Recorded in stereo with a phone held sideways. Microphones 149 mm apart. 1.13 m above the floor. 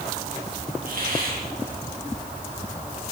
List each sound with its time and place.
0.8 s a hiss: 65° right (ahead or behind), 6 m